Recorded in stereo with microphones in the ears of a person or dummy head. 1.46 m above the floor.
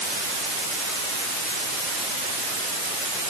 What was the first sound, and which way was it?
Only background noise.